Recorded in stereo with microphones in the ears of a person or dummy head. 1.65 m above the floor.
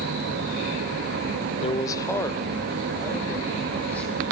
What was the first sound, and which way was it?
A man speaking, 30° left (ahead or behind).